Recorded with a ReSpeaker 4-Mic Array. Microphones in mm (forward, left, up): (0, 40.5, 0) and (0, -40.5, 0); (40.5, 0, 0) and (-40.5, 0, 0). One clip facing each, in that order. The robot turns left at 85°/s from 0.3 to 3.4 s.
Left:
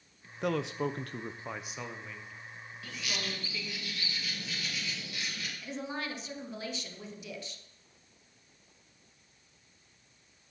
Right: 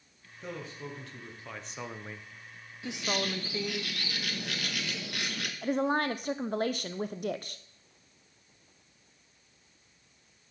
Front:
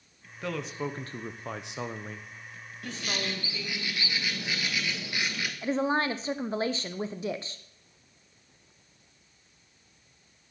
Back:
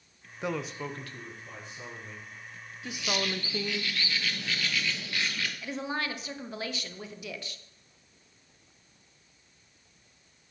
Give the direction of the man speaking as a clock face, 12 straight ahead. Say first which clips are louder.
Left 9 dB, even; 8 o'clock.